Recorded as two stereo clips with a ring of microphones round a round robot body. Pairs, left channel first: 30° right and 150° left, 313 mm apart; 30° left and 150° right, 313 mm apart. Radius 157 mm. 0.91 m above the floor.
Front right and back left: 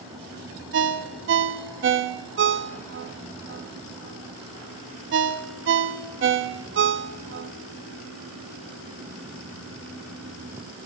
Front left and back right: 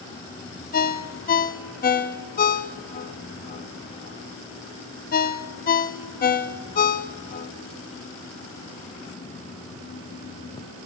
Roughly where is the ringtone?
Left.